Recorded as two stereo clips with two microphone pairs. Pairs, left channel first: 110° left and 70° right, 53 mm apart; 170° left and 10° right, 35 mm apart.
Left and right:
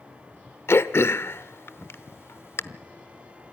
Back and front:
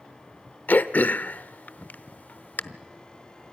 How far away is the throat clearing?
About 0.8 m.